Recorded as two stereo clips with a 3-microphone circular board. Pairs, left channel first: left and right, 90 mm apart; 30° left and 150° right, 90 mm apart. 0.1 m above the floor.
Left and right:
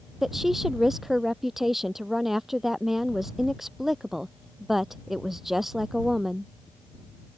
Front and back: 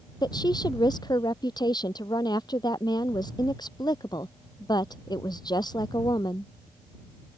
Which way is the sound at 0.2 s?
5° right.